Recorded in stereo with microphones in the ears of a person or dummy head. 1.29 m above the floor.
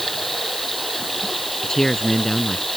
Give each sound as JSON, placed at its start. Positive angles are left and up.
{"t": 0.0, "sound": "running water", "side_deg": 0}
{"t": 1.6, "sound": "a man speaking", "side_deg": 5}